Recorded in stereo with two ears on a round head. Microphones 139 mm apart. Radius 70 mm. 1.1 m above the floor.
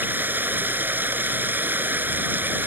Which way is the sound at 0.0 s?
10° right (ahead or behind).